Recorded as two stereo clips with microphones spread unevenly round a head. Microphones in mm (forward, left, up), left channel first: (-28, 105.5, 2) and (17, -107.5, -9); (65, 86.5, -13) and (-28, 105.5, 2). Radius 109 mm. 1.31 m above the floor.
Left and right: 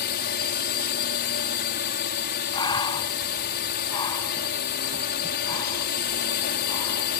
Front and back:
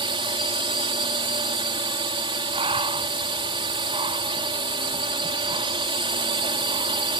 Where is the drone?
145° left.